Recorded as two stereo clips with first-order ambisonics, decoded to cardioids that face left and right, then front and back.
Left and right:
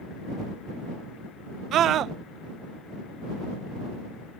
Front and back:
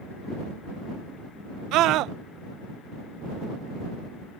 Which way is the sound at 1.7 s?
140° right.